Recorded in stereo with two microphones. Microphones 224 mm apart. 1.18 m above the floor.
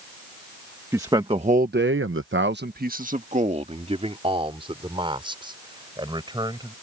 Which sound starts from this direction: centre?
A man speaking, at 0.9 s.